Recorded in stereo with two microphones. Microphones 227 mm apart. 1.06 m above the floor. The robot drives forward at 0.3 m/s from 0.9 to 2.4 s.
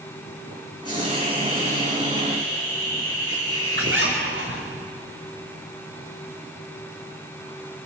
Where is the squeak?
55° right (ahead or behind), 4 m.